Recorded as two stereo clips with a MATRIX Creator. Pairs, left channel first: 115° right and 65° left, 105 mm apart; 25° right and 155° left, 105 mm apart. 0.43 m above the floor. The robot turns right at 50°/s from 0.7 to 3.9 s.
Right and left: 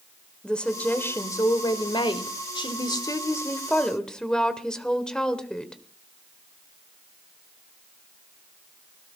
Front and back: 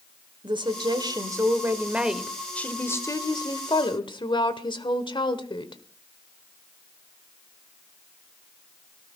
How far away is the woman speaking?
About 1.5 m.